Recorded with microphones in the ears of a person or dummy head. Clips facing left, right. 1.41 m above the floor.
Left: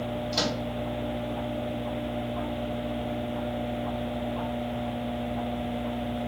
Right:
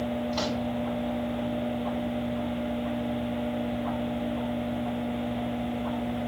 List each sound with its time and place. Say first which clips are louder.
0.3 s a microwave: right 1 dB; 25° left (ahead or behind), 7.5 m